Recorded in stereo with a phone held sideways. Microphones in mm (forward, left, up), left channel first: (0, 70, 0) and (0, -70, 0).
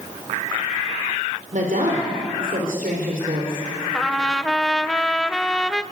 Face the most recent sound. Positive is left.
turn(degrees=5)  # may be behind; listen again after turning